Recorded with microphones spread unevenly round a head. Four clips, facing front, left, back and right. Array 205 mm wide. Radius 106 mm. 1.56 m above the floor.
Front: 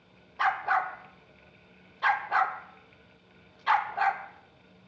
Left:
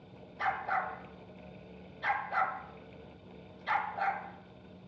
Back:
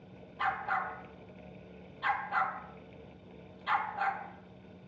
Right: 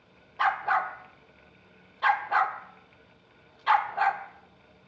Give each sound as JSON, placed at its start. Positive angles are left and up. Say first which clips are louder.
{"t": 0.4, "sound": "a dog barking", "louder": "right 7 dB, front 6 dB", "azimuth_deg": -55, "distance_m": 1.9}